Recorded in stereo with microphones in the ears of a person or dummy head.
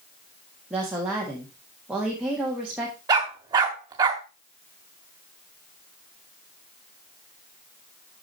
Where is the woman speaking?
5° right (ahead or behind), 1.6 m.